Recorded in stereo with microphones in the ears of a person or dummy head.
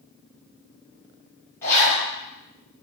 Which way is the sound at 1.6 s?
5° left (ahead or behind).